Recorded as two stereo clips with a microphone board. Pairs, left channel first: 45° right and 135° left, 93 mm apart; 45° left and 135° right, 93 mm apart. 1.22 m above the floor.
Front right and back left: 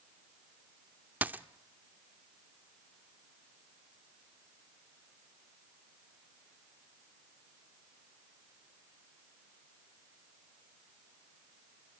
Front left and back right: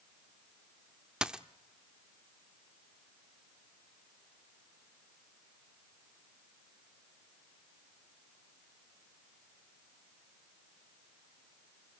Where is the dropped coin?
160° left, 0.8 m.